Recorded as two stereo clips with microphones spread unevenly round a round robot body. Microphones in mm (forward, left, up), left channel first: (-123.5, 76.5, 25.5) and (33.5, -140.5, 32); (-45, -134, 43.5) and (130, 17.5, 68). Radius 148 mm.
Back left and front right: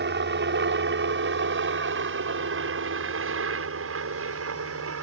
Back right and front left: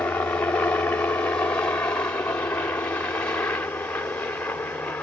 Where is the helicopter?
65° right; by 5.0 s 60° right.